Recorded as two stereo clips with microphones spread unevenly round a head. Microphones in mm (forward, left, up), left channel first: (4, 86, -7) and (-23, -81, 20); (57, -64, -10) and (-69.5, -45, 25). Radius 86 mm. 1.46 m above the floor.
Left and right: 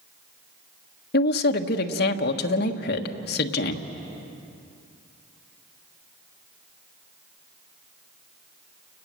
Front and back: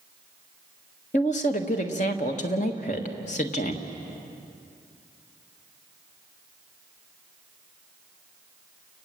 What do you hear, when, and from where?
1.1 s a woman speaking: 45° left, 1.4 m